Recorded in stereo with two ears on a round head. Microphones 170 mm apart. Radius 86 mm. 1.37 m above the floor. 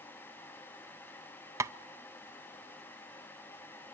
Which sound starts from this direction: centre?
Tapping, at 1.6 s.